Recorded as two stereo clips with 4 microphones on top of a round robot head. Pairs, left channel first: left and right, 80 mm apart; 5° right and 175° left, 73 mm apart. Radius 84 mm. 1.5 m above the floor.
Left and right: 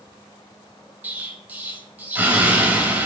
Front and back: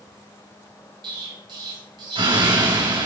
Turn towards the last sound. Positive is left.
turn(degrees=-160)